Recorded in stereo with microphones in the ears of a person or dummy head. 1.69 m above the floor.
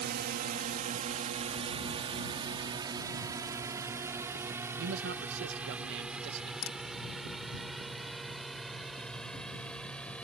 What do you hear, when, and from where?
0.0 s a drone: 50° right (ahead or behind); by 10.2 s centre (ahead or behind)
4.8 s a man speaking: 65° right (ahead or behind)
6.6 s a crack: 80° left